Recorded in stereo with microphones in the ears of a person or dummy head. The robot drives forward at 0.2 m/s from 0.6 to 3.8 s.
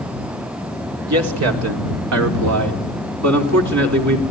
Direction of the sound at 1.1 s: 85° right.